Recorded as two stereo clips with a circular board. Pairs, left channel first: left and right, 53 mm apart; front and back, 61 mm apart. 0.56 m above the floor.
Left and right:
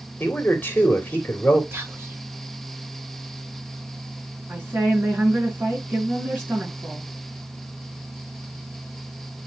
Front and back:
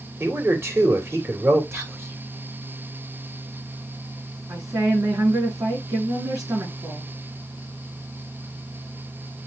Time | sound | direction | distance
0.2 | a man speaking | 140° left | 2.5 m
1.7 | whispering | 135° right | 3 m
4.5 | a woman speaking | 145° right | 6 m